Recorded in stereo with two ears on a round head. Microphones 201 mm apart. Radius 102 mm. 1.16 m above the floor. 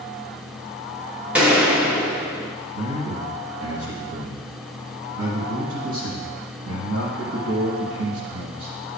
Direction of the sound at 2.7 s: 70° right (ahead or behind).